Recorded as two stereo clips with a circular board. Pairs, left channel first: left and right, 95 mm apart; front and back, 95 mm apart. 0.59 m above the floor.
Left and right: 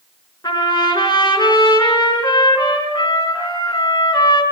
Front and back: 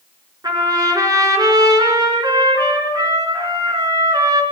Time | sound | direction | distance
0.4 | a trumpet | 130° left | 5 m